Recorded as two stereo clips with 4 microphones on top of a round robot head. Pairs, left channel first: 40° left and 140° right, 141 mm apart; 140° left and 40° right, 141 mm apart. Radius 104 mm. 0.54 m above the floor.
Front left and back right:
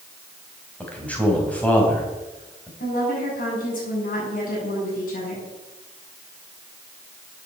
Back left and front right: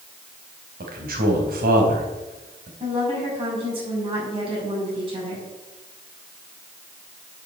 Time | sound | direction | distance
0.8 | a man speaking | 40° right | 4 m
2.8 | a woman speaking | 15° left | 7 m